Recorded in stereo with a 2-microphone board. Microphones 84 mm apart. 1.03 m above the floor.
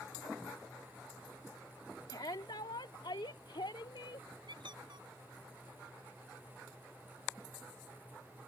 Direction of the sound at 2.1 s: 60° left (ahead or behind).